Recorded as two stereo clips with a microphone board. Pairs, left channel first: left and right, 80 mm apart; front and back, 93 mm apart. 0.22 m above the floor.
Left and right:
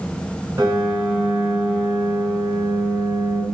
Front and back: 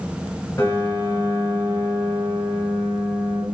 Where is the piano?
45° right, 1.2 m.